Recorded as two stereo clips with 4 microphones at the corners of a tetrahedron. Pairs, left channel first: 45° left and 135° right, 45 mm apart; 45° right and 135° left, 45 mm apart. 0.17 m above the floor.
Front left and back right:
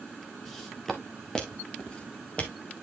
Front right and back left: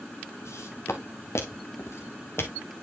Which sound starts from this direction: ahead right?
Footsteps, at 0.5 s.